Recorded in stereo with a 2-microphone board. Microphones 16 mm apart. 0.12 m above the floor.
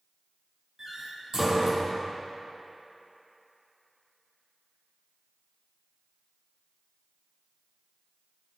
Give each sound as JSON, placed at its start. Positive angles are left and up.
{"t": 0.8, "sound": "a door slam", "side_deg": -30, "distance_m": 2.5}